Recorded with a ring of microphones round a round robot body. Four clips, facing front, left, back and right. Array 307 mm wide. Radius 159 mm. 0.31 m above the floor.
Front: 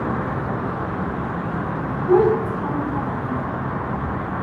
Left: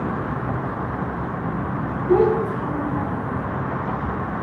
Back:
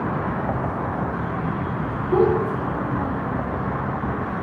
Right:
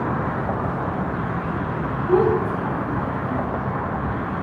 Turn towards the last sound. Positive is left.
turn(degrees=-10)